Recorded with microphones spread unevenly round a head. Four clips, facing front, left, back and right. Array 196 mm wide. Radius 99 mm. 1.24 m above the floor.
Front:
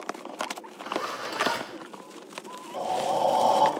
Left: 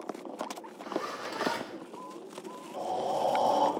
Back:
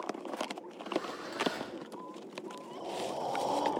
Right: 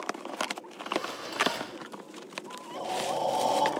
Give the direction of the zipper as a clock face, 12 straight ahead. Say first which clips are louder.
Right 1 dB, front 5 dB; 12 o'clock.